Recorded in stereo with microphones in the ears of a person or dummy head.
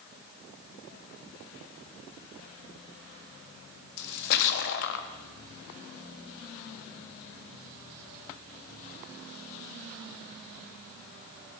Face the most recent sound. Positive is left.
turn(degrees=60)  # may be behind; listen again after turning